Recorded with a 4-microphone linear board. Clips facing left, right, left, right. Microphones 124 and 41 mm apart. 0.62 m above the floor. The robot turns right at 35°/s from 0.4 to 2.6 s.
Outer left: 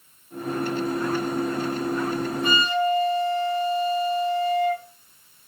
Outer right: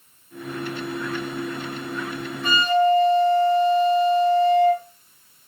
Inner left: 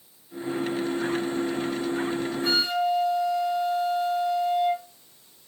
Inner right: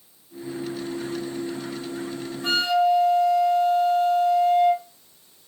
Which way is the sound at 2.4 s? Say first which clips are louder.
Outer right 6 dB, inner right 6 dB; 40° right (ahead or behind).